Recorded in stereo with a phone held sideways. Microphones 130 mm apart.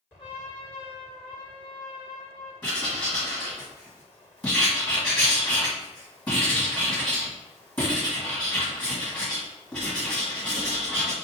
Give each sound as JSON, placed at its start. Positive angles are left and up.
{"t": 0.2, "sound": "a trumpet", "side_deg": 40, "distance_m": 1.0}
{"t": 2.6, "sound": "writing", "side_deg": 15, "distance_m": 1.3}